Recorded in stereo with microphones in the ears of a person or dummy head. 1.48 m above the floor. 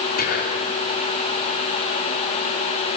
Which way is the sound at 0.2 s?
50° left (ahead or behind).